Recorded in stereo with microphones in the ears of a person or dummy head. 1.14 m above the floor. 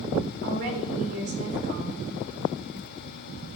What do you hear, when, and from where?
0.4 s a woman speaking: 55° right (ahead or behind), 3 m